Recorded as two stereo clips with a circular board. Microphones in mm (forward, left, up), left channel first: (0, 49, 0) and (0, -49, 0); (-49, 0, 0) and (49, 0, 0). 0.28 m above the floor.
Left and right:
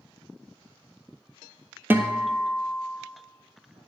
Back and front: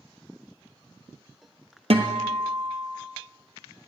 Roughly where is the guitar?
Ahead.